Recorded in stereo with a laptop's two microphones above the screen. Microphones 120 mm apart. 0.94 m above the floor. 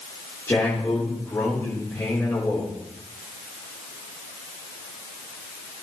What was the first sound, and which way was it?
A man speaking, 25° left (ahead or behind).